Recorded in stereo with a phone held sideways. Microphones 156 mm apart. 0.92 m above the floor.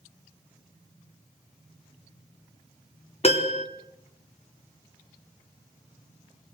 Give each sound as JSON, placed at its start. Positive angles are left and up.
{"t": 3.2, "sound": "a piano", "side_deg": 40, "distance_m": 1.6}